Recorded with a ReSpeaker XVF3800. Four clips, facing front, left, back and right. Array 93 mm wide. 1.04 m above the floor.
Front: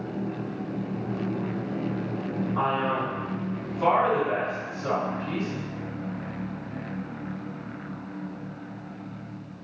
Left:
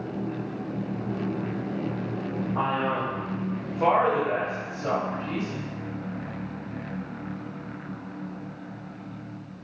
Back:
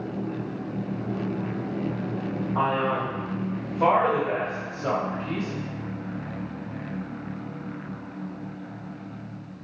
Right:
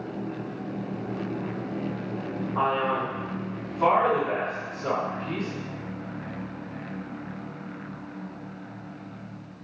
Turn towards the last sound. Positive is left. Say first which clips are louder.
# right 2 dB, back 2 dB
turn(degrees=155)